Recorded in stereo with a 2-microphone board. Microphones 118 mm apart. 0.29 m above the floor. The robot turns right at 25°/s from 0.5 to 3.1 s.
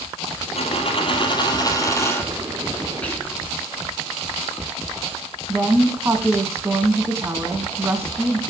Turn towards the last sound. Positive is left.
turn(degrees=-20)  # may be behind; listen again after turning